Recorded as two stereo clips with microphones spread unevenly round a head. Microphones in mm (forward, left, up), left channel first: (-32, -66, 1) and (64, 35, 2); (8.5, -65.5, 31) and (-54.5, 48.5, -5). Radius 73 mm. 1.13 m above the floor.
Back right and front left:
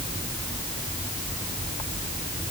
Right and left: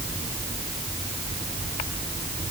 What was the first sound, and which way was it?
Only background noise.